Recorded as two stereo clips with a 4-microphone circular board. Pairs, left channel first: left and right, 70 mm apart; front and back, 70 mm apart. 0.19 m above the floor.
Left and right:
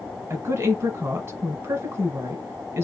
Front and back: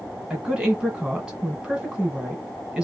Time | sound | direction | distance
0.3 | a woman speaking | 110° right | 1.3 m